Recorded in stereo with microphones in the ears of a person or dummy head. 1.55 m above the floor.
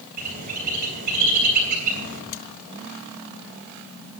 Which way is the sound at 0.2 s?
45° right (ahead or behind).